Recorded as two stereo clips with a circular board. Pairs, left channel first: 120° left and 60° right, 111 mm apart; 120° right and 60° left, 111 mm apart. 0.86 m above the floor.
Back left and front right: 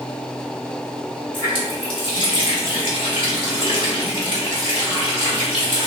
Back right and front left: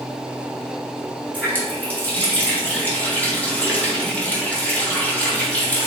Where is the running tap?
165° left, 1.3 m.